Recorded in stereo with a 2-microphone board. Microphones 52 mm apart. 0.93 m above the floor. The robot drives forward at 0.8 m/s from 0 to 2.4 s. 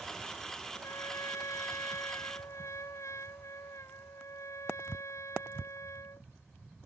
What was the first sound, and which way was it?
A trumpet, 70° left (ahead or behind).